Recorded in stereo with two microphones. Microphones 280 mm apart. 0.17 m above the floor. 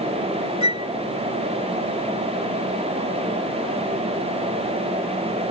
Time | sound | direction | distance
0.6 | a flute | 85° left | ?